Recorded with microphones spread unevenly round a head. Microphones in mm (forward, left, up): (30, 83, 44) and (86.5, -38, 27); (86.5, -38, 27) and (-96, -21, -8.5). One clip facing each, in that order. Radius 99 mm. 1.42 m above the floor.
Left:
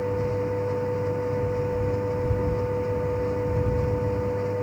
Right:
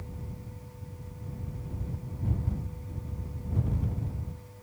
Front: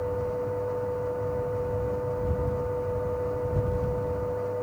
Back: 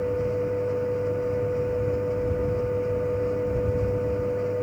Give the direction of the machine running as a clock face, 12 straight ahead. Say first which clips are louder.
Left 20 dB, back 4 dB; 8 o'clock.